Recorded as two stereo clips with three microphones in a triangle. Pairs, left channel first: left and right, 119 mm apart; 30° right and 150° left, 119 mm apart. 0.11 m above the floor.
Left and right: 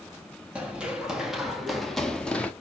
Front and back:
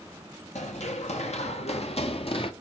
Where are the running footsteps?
10° right, 2.5 m; by 2.5 s 10° left, 1.5 m.